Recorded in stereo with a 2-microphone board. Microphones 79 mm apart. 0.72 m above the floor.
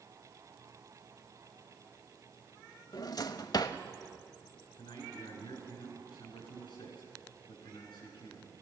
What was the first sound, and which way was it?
A drawer, 55° left (ahead or behind).